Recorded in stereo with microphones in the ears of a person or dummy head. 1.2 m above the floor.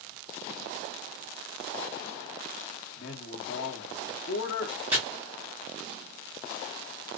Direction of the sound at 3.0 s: 50° left (ahead or behind).